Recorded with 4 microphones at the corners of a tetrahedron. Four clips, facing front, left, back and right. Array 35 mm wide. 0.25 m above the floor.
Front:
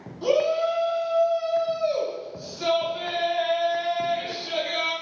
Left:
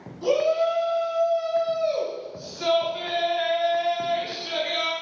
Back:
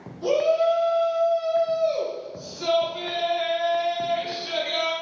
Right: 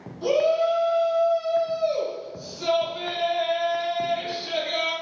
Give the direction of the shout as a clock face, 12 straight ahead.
12 o'clock.